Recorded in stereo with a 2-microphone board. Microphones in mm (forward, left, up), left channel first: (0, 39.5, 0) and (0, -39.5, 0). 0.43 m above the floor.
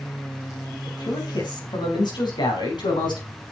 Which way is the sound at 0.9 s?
65° left (ahead or behind).